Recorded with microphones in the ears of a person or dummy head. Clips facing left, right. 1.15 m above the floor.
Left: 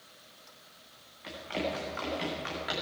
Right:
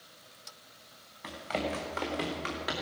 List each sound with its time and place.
1.2 s running footsteps: 75° right (ahead or behind), 4 m; by 2.7 s 55° right (ahead or behind), 4 m